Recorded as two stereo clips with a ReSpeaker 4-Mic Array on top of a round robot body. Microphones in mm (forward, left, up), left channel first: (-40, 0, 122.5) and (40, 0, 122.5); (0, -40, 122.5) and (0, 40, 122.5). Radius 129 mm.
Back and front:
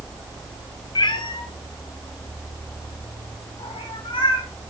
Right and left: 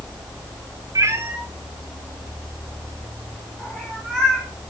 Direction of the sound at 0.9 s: 140° left.